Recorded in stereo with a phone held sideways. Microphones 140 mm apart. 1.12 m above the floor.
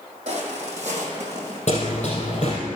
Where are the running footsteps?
50° left (ahead or behind), 4 m.